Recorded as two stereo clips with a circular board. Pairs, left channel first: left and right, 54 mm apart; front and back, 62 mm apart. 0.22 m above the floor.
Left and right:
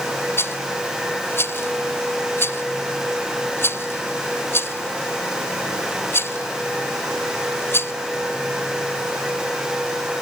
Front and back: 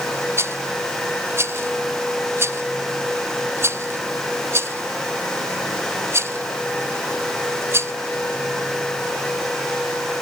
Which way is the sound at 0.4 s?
135° left.